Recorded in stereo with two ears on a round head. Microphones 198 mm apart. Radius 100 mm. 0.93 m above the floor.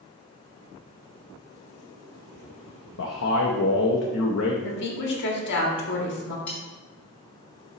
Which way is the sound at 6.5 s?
5° left (ahead or behind).